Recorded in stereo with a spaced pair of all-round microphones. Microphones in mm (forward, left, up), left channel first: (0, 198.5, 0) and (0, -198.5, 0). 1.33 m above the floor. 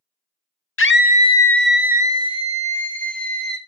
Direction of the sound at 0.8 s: 35° left (ahead or behind).